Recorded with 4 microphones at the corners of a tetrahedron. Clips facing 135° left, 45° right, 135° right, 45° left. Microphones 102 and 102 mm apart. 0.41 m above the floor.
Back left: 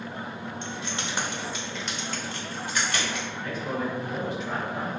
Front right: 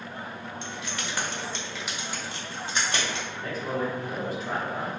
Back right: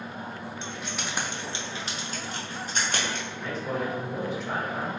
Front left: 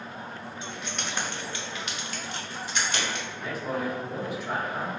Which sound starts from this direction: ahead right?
A man speaking, at 3.3 s.